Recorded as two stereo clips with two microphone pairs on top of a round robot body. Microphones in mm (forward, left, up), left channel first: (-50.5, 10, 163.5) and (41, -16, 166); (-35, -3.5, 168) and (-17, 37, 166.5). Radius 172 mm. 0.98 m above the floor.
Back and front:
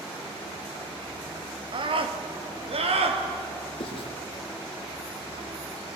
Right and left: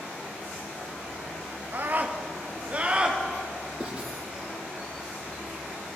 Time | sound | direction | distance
1.7 | a scream | 20° left | 1.6 m
3.8 | writing | 135° left | 3 m